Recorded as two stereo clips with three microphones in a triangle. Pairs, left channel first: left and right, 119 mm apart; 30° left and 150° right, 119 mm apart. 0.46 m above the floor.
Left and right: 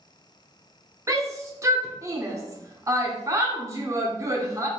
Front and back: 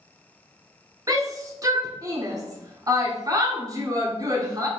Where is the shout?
130° right, 0.8 m.